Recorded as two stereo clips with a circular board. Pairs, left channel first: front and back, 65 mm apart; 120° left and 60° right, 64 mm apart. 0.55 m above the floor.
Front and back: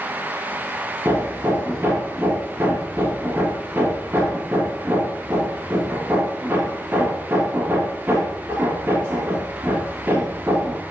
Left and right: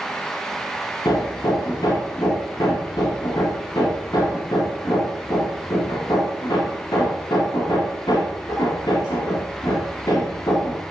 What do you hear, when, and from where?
1.1 s hammering: 115° left, 3 m